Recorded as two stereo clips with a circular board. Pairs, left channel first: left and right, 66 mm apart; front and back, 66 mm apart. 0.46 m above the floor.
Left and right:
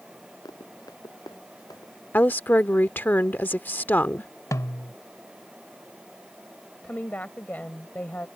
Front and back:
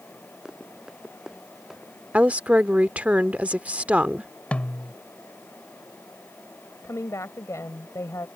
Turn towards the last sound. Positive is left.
turn(degrees=30)